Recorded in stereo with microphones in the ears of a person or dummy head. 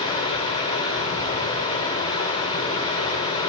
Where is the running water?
35° left (ahead or behind), 1.6 m.